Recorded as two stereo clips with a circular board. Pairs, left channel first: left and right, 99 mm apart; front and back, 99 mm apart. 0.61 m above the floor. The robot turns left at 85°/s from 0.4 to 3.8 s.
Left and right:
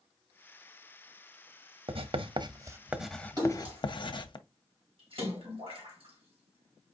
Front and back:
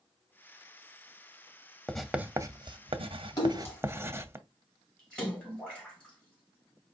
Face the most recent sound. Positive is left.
turn(degrees=-80)